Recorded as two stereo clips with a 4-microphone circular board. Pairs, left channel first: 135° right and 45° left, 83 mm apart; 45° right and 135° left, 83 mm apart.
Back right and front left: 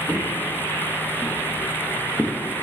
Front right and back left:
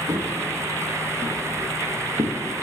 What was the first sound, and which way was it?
Footsteps, 130° left.